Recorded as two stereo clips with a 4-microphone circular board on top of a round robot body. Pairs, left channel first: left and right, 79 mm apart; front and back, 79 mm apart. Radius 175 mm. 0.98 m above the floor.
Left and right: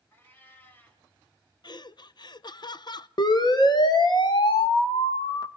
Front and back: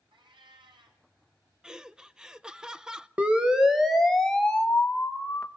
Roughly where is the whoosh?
No whoosh in this recording.